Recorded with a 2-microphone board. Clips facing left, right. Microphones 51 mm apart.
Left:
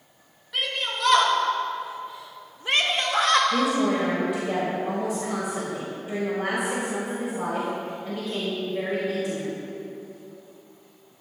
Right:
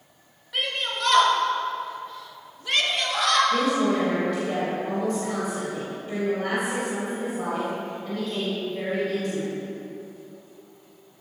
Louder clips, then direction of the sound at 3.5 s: Even; 10° left (ahead or behind).